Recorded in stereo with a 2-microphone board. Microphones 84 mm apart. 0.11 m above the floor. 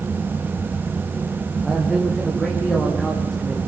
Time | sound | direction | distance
1.6 | a man speaking | 5° left (ahead or behind) | 6.5 m